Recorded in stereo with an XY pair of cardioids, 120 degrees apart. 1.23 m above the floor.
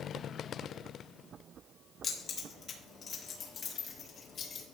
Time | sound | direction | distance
2.0 | keys jangling | 50° left | 3.5 m